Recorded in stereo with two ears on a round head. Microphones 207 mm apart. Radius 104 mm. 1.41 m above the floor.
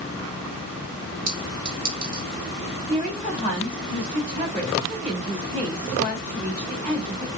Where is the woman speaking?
30° right (ahead or behind), 4 m.